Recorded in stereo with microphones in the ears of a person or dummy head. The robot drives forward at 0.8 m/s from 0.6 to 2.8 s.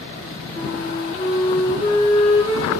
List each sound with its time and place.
0.6 s a flute: 20° left (ahead or behind), 5 m; by 2.7 s 30° left (ahead or behind), 3.5 m